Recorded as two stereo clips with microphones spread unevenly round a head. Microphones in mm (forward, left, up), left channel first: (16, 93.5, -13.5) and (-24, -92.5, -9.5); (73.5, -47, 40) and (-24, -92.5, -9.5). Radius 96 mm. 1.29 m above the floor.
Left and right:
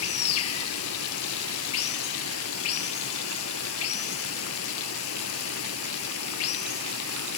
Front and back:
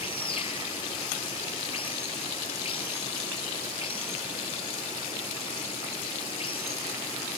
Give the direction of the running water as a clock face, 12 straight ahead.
9 o'clock.